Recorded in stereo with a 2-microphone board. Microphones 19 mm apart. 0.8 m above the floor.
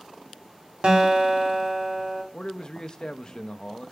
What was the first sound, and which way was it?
A guitar, 50° right (ahead or behind).